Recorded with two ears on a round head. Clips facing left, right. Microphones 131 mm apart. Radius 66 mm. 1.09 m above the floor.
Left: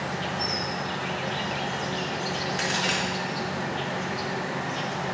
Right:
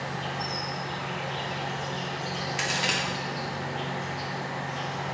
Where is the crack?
10° right (ahead or behind), 1.0 m.